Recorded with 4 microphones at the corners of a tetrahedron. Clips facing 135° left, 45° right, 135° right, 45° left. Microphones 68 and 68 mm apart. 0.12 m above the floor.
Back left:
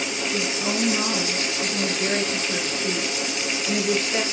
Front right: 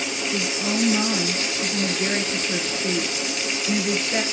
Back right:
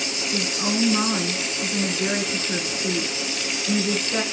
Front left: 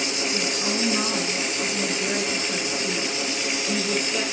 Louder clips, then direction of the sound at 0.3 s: Front right 1 dB, back right 5 dB; 105° right.